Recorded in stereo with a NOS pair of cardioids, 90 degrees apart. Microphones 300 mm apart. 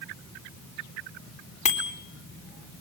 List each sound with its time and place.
1.6 s a bicycle bell: 20° left, 4 m